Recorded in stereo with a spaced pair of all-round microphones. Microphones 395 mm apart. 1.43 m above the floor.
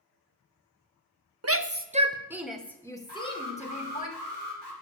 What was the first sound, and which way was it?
A shout, 40° right (ahead or behind).